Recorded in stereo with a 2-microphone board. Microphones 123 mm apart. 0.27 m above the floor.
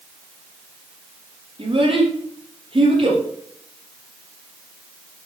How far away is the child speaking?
About 6 m.